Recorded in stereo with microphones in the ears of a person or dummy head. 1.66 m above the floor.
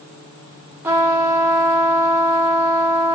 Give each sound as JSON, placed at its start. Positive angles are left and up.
{"t": 0.8, "sound": "a trumpet", "side_deg": -10, "distance_m": 0.5}